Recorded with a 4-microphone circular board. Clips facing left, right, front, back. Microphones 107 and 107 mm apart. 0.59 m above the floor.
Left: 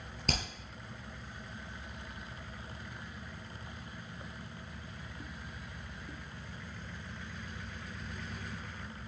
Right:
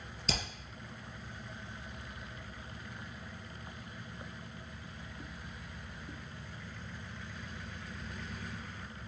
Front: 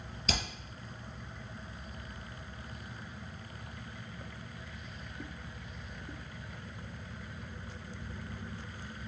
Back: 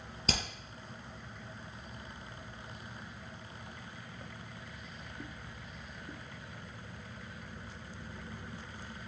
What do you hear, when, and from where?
0.3 s hammering: 125° left, 4 m